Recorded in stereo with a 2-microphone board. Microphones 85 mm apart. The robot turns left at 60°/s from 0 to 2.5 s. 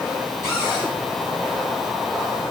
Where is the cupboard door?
35° left (ahead or behind), 3.5 m; by 0.9 s 60° left (ahead or behind), 3.5 m.